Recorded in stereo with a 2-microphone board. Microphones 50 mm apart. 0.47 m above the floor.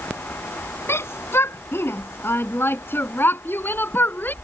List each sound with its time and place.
0.9 s a shout: 60° left (ahead or behind); by 4.3 s 40° left (ahead or behind)